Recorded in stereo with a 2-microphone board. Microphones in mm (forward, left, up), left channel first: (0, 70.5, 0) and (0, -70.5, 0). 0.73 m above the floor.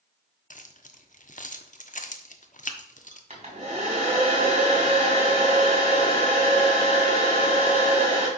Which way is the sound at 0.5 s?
60° left (ahead or behind).